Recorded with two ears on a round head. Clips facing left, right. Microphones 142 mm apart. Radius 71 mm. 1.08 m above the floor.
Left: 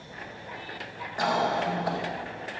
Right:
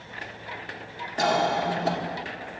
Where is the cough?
30° right (ahead or behind), 1.6 m.